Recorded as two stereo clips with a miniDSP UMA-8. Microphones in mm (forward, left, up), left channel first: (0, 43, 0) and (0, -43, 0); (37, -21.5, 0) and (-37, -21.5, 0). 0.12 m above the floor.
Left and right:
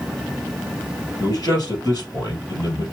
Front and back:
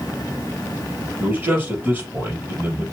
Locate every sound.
1.2 s a man speaking: 125° left, 3 m